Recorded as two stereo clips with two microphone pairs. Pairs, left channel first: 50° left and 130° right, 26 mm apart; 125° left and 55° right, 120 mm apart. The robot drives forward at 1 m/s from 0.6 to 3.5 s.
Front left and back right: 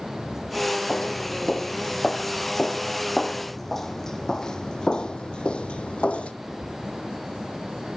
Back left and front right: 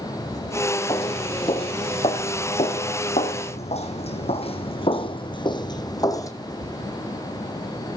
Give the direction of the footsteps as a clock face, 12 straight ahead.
9 o'clock.